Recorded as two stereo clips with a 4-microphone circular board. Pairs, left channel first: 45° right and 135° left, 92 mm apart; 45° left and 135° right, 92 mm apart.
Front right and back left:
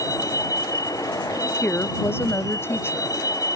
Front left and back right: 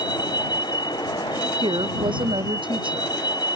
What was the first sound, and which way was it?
A vehicle, 5° left.